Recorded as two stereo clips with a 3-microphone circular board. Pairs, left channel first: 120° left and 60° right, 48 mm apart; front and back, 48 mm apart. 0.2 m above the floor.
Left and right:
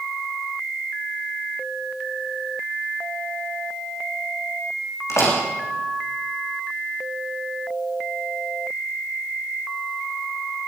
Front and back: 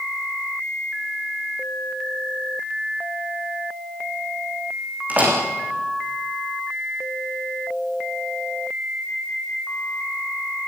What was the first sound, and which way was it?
A door slam, 125° left.